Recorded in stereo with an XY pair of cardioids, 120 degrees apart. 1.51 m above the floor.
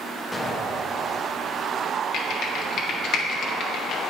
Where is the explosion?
5° left, 1.3 m.